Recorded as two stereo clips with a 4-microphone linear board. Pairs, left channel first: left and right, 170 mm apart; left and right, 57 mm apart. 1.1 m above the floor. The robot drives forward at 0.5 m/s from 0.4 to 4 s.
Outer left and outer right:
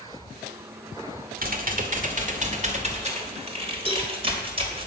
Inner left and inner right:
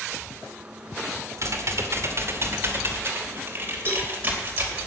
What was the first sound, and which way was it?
Typing on a keyboard, 60° right (ahead or behind).